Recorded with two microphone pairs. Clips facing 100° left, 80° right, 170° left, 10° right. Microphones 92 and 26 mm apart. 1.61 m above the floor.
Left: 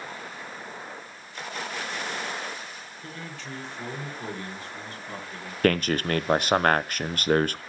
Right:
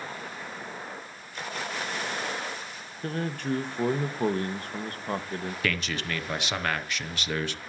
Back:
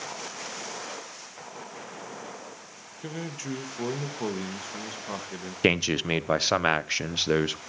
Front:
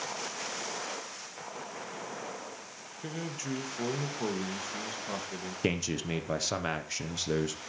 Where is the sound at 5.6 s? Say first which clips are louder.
Left 11 dB, back 8 dB; 135° left, 0.7 m.